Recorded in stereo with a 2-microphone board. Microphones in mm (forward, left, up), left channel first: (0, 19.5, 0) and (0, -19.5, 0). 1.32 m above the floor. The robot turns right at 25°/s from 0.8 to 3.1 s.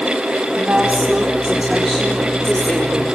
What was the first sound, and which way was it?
A woman speaking, 35° right.